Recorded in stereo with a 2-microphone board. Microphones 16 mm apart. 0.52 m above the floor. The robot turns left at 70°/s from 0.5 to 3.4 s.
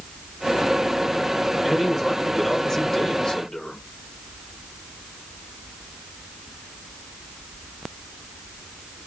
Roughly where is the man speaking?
Behind right.